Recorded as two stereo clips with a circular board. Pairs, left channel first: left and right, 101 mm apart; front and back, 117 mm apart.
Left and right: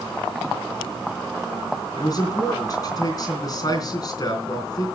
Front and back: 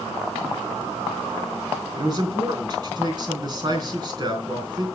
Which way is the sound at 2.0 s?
135° left.